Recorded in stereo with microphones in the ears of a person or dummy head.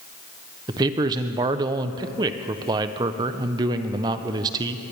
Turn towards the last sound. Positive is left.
turn(degrees=-25)  # may be behind; listen again after turning